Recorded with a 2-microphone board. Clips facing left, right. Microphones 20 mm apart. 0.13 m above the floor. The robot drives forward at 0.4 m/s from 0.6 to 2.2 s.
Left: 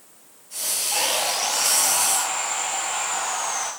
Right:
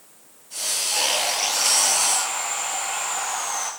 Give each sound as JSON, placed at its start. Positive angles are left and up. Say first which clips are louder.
{"t": 0.9, "sound": "sawing", "louder": "even", "side_deg": 15, "distance_m": 7.0}